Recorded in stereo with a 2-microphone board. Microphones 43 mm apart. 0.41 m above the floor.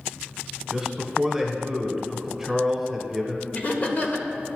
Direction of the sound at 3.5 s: 35° left (ahead or behind).